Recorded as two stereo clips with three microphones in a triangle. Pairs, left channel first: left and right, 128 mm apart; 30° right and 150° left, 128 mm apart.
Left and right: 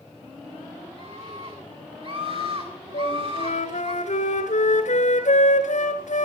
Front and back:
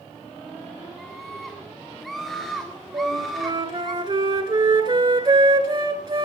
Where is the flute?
100° left, 1.8 m.